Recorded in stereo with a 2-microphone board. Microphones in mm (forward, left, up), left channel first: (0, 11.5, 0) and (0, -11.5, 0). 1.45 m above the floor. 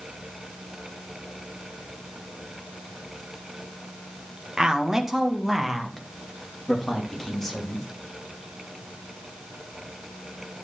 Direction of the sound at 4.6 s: 35° right (ahead or behind).